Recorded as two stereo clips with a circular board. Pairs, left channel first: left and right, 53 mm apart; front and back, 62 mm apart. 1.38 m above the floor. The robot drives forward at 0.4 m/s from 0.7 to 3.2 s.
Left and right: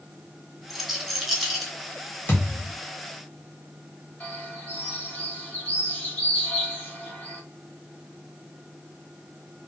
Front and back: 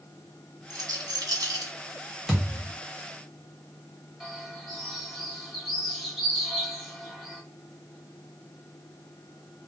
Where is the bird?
100° left, 1.3 m.